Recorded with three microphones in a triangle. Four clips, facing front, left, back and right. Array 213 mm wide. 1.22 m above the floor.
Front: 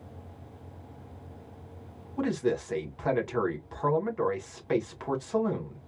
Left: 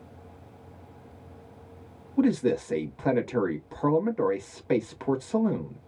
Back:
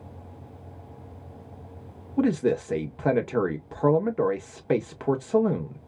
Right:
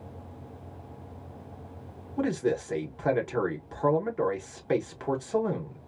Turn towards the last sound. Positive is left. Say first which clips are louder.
# left 4 dB, back 5 dB
turn(degrees=175)